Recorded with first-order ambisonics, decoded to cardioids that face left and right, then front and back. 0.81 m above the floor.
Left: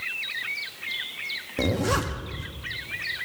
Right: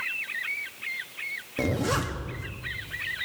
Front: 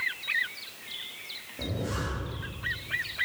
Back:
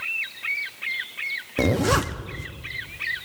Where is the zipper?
170° left, 0.7 m.